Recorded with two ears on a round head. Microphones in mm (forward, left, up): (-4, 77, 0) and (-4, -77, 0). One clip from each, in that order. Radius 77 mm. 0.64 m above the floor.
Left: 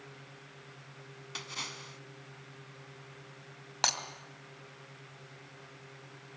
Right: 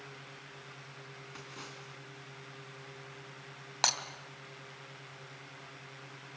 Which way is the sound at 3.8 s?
10° right (ahead or behind).